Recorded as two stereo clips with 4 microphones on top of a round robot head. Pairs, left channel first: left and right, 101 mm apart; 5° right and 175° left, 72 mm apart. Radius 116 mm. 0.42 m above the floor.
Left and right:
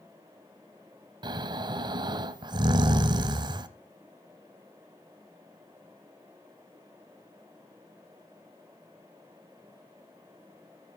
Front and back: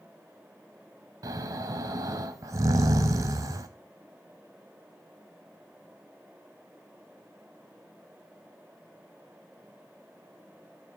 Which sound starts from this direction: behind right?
Snoring, at 1.2 s.